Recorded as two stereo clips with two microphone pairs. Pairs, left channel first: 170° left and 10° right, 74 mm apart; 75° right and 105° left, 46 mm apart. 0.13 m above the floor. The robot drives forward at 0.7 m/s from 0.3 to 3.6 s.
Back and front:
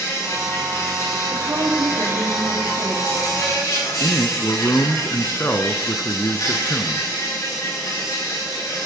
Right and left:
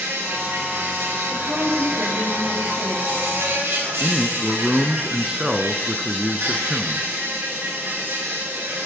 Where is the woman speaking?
30° left, 5.5 m; by 3.2 s 35° left, 4.5 m.